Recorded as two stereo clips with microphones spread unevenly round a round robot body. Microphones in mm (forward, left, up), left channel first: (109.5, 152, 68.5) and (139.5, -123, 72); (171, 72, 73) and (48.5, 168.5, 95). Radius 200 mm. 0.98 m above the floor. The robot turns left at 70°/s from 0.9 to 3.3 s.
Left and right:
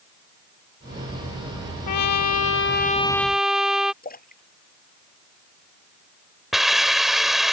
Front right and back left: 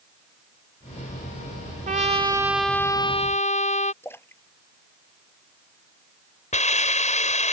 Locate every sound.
1.9 s a trumpet: 105° left; by 3.9 s 5° left
4.0 s a splash: 40° left
6.5 s a hiss: 5° left